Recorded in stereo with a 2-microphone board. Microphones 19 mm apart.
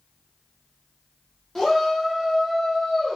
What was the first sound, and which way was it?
A shout, 20° left (ahead or behind).